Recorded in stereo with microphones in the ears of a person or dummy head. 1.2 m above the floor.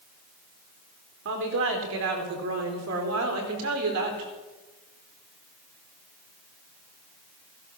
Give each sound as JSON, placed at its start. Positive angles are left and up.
{"t": 1.2, "sound": "a woman speaking", "side_deg": -65, "distance_m": 4.0}